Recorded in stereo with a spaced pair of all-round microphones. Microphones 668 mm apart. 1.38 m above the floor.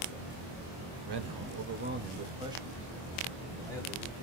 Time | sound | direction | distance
1.1 | a man speaking | 40° right (ahead or behind) | 0.6 m